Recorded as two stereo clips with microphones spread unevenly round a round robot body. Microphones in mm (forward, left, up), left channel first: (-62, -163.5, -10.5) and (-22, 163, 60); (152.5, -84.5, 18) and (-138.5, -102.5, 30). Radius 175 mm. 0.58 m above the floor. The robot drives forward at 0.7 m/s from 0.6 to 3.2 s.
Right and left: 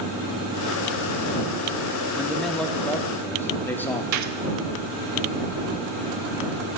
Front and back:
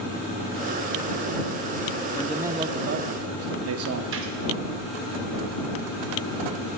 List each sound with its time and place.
2.1 s a man speaking: 40° right, 0.6 m; by 4.0 s 165° right, 0.8 m
4.1 s a gunshot: 130° left, 0.7 m